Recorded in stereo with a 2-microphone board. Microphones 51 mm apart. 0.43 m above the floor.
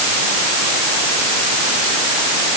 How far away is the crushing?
I don't hear crushing.